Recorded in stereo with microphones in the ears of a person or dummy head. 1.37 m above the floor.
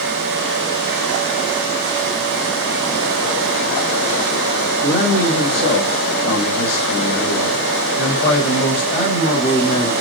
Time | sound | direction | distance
4.8 | a man speaking | 70° left (ahead or behind) | 1.8 m